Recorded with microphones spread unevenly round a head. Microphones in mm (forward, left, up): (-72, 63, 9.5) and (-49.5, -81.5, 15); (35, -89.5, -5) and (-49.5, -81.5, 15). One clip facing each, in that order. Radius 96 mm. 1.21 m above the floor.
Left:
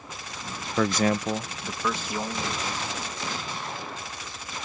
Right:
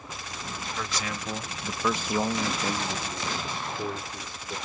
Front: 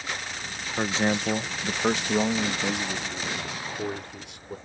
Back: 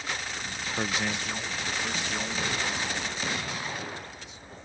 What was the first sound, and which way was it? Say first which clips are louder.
A man speaking: left 13 dB, front 6 dB; 70° left.